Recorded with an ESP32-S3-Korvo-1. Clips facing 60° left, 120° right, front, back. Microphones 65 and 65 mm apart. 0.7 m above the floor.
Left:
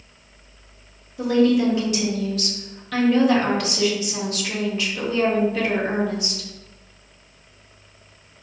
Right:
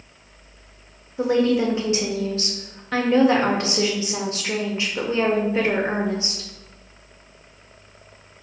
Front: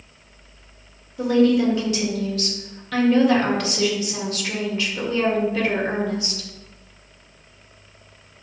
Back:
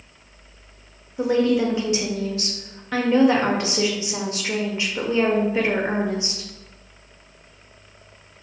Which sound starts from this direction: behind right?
A woman speaking, at 1.2 s.